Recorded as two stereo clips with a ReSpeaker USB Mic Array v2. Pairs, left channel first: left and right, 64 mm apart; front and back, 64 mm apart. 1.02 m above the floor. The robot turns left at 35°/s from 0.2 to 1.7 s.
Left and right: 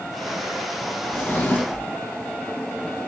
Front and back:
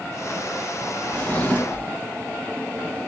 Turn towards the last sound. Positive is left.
turn(degrees=45)